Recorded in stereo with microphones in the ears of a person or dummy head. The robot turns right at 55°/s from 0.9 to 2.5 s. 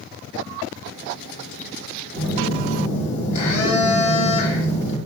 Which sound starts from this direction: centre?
A phone buzzing, at 2.1 s.